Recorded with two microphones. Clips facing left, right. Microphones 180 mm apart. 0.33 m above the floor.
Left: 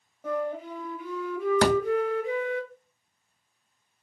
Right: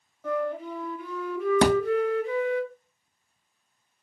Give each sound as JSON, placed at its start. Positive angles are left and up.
{"t": 0.2, "sound": "a flute", "side_deg": 15, "distance_m": 1.0}
{"t": 1.6, "sound": "a thud", "side_deg": -20, "distance_m": 0.6}